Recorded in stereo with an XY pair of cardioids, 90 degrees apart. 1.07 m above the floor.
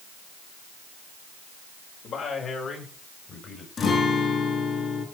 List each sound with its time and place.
2.0 s a man speaking: 65° left, 5.5 m; by 3.7 s 55° left, 6.5 m
3.8 s a guitar: 60° left, 5 m